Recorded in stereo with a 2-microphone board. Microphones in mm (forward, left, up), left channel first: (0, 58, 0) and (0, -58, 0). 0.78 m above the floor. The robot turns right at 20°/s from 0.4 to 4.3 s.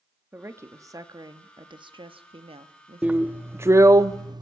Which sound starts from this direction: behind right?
A woman speaking, at 0.3 s.